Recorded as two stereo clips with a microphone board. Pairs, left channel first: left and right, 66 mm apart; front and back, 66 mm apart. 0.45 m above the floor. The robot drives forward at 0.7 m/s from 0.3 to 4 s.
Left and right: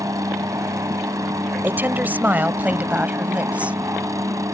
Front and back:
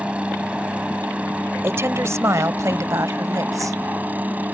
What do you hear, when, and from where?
0.0 s a helicopter: 110° right; by 4.5 s 120° right
1.6 s a woman speaking: 145° right; by 3.8 s 160° right